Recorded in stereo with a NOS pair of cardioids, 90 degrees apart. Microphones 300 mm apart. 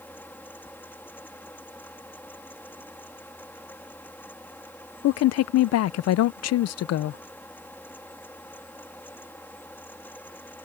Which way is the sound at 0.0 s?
5° left.